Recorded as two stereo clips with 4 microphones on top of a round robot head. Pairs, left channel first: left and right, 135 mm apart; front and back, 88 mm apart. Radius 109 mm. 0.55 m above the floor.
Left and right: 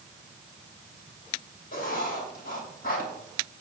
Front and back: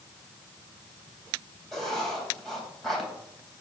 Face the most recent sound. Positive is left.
turn(degrees=85)